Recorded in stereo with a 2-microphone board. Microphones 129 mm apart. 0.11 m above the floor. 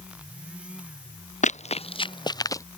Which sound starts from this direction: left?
Running footsteps, at 1.4 s.